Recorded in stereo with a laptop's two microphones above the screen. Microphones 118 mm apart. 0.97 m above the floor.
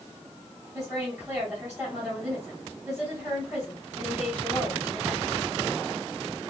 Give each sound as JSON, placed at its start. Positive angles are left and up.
{"t": 0.7, "sound": "a woman speaking", "side_deg": -5, "distance_m": 2.5}